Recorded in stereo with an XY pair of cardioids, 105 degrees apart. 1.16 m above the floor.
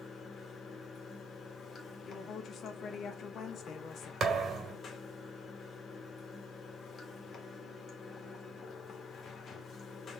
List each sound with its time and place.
0.0 s running water: 50° left, 1.8 m
2.0 s a woman speaking: 60° left, 1.3 m
4.2 s a thud: 50° right, 1.8 m